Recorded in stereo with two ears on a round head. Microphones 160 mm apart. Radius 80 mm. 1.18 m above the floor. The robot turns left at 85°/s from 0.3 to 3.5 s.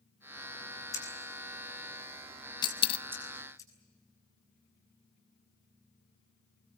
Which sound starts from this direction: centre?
Scissors, at 0.9 s.